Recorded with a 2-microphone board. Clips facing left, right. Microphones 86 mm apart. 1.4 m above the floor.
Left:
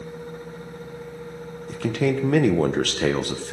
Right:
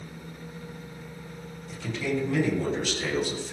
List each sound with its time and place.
1.7 s a man speaking: 75° left (ahead or behind), 1.2 m